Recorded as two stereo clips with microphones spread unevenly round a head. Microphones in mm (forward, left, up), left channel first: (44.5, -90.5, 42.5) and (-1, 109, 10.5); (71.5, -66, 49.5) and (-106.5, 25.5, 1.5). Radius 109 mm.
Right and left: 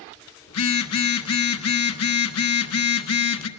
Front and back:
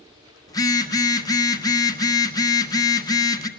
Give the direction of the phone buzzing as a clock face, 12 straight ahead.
3 o'clock.